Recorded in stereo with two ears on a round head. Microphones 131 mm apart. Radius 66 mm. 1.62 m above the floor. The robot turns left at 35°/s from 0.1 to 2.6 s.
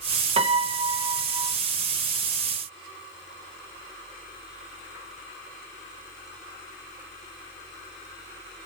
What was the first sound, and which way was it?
A piano, 110° right.